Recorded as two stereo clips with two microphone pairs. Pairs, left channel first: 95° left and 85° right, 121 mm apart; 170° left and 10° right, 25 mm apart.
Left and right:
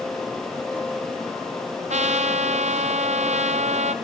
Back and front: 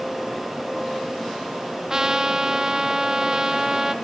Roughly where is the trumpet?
Right.